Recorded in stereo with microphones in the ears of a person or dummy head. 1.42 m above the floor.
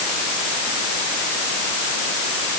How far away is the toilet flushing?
I don't hear a toilet flushing.